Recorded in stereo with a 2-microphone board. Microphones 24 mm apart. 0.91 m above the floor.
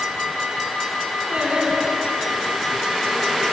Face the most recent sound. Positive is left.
turn(degrees=-55)  # may be behind; listen again after turning